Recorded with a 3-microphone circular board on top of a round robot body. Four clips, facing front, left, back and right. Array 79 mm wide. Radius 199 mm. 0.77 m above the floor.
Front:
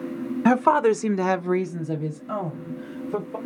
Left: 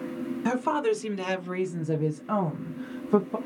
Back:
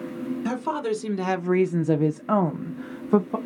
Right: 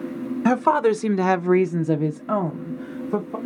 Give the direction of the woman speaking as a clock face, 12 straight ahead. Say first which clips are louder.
Right 8 dB, front 10 dB; 1 o'clock.